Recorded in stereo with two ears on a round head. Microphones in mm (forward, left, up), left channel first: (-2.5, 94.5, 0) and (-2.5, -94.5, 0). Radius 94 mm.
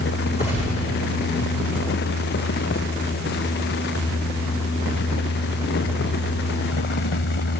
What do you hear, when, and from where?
0.4 s a gunshot: 30° left (ahead or behind), 6.5 m